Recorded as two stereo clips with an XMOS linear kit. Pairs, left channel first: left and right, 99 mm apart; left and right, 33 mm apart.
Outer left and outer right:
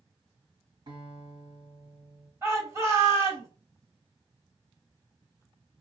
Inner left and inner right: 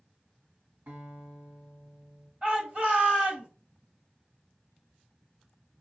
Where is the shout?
30° right (ahead or behind), 2 m.